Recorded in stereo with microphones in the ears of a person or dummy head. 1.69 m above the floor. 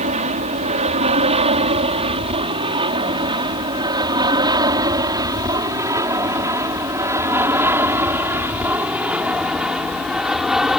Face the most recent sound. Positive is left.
turn(degrees=-5)  # may be behind; listen again after turning